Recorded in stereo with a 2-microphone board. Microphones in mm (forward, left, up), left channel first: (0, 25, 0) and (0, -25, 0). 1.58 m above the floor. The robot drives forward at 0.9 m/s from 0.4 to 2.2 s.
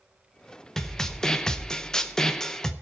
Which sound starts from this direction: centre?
A snare drum, at 0.8 s.